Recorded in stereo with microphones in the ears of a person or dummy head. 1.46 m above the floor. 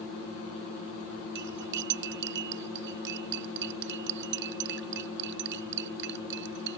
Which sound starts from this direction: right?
Cutlery clinking, at 1.4 s.